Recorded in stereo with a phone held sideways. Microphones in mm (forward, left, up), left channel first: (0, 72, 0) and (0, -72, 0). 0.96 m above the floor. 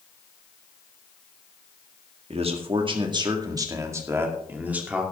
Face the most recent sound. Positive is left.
turn(degrees=-10)  # may be behind; listen again after turning